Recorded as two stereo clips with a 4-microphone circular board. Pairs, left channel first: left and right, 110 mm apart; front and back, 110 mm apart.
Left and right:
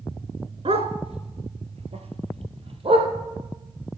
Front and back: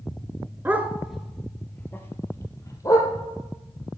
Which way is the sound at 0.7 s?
110° right.